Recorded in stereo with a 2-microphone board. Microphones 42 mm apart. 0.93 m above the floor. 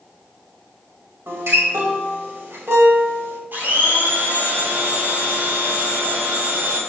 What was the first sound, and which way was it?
A guitar, 85° right.